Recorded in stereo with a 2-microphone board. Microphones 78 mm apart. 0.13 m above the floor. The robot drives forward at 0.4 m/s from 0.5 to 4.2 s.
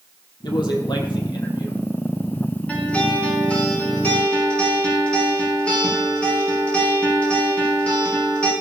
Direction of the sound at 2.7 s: 15° left (ahead or behind).